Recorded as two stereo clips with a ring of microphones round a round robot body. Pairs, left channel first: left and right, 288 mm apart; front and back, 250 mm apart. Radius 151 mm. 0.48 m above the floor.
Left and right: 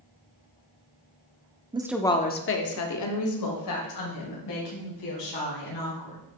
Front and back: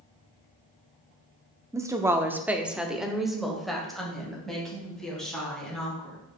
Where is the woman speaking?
125° right, 0.9 m; by 6.2 s 85° left, 5.5 m.